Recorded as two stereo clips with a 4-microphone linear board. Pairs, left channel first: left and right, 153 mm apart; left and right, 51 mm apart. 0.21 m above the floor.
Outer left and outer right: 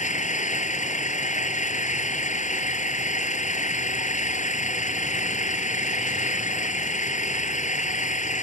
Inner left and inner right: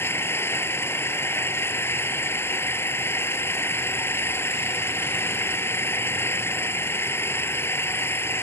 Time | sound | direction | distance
0.0 | an engine running | 50° left (ahead or behind) | ?